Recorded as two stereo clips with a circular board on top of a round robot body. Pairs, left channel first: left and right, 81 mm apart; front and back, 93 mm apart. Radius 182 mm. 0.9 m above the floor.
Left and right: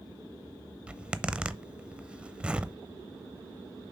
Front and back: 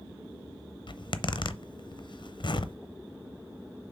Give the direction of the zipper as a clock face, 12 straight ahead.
1 o'clock.